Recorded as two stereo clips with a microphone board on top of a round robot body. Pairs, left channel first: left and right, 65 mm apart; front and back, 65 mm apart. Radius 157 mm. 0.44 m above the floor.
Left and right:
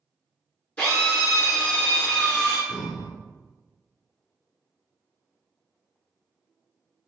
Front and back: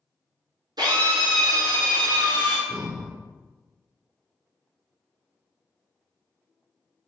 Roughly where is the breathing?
Left.